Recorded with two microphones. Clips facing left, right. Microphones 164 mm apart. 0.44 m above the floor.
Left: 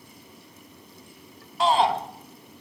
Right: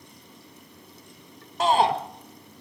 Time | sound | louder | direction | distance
1.6 | a shout | even | 40° right (ahead or behind) | 1.0 m